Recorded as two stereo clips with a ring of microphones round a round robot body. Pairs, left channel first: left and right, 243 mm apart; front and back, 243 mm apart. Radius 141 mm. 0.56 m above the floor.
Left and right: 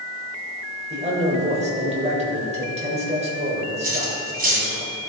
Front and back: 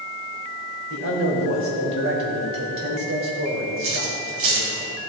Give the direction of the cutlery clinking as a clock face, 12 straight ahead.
5 o'clock.